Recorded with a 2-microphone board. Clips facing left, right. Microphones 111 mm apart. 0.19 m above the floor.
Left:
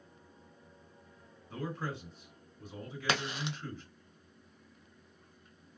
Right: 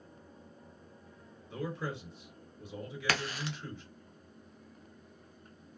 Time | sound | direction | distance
1.5 | a man speaking | 45° left (ahead or behind) | 2 m
3.1 | a crack | 20° left (ahead or behind) | 0.6 m